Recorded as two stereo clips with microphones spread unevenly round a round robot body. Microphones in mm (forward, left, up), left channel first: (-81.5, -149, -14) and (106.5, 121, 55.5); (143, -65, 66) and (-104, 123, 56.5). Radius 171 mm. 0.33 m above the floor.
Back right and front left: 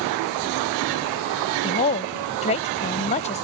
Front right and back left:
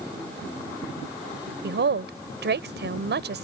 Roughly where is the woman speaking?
Behind.